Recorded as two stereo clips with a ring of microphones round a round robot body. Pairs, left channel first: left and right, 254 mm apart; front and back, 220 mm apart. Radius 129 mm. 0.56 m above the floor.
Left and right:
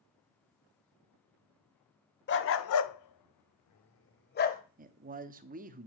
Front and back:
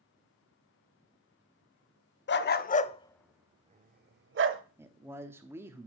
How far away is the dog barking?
About 0.9 m.